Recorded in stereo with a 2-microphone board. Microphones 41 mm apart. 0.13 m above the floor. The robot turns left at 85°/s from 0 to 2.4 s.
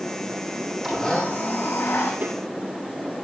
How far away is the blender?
About 5.5 m.